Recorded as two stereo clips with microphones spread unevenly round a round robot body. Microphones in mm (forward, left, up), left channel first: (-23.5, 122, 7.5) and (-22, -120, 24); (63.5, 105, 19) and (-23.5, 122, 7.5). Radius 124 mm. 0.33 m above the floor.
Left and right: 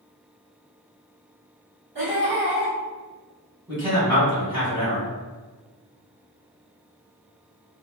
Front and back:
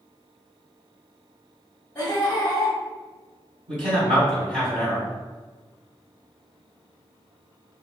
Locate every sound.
1.9 s laughter: 80° right, 1.8 m
3.7 s a man speaking: straight behind, 1.6 m